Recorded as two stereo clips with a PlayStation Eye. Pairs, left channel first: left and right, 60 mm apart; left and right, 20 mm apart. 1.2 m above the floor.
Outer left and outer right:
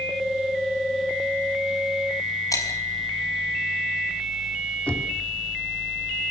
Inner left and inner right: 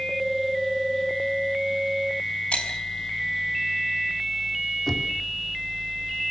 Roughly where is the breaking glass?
Left.